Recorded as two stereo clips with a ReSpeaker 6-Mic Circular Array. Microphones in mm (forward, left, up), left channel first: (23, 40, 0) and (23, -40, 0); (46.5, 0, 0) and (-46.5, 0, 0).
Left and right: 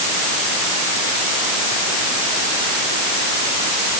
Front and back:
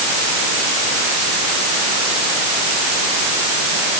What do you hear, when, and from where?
Only background noise.